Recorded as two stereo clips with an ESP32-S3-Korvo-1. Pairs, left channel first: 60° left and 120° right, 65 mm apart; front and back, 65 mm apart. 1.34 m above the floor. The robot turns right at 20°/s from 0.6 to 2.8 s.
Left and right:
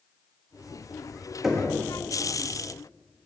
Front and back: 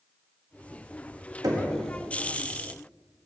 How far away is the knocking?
About 1.6 m.